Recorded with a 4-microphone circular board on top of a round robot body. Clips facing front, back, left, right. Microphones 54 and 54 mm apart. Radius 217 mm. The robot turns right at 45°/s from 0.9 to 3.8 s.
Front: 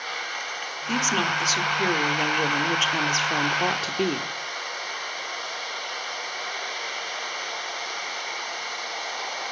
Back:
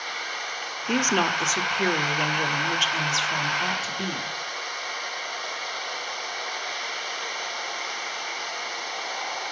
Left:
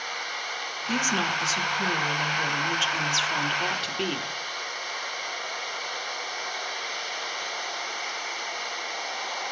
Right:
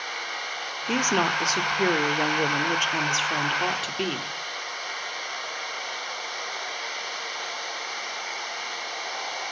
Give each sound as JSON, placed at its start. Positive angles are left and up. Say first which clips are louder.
{"t": 0.9, "sound": "a woman speaking", "louder": "back 1 dB, right 3 dB", "azimuth_deg": -140, "distance_m": 1.9}